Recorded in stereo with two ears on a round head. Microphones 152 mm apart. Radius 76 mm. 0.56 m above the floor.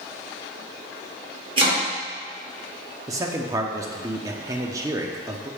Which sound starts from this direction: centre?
A man speaking, at 3.1 s.